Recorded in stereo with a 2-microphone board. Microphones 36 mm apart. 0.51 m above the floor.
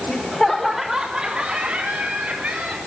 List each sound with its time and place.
0.1 s laughter: 30° left (ahead or behind), 1.2 m; by 2.8 s 40° right (ahead or behind), 3.5 m